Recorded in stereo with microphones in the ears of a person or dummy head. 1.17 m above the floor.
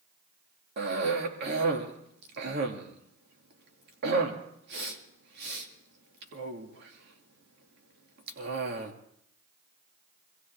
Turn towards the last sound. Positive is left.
turn(degrees=-60)  # may be behind; listen again after turning